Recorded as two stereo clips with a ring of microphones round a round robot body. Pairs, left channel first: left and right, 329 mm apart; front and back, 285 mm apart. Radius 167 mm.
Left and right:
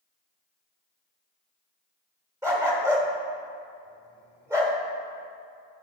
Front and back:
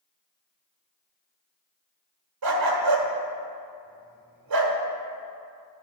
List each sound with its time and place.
2.4 s a dog barking: 170° right, 1.1 m